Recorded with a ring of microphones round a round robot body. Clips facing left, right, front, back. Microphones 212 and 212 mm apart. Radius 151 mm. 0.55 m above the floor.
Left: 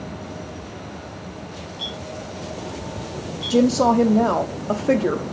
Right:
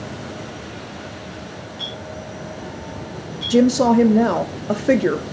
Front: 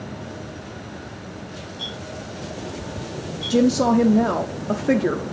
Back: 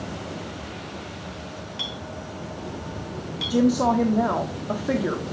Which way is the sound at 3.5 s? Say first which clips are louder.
Right 3 dB, front 3 dB; 30° right.